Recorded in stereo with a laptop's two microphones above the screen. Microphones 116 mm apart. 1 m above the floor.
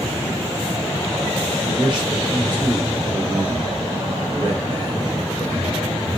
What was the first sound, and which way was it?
A man speaking, 40° right (ahead or behind).